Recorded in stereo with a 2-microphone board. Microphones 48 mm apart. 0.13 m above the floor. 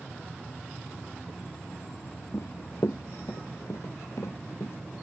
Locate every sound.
2.3 s running footsteps: 75° left (ahead or behind); by 4.8 s 85° left